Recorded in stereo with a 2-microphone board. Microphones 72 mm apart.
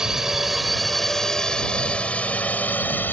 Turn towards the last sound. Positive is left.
turn(degrees=25)  # may be behind; listen again after turning